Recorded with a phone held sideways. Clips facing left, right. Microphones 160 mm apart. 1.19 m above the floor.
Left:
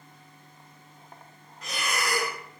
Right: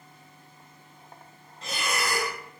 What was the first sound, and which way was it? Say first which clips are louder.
A fan: even; 5° right (ahead or behind).